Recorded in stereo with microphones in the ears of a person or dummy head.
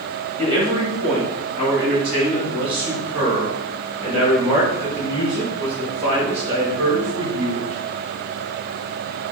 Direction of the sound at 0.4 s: 25° right (ahead or behind).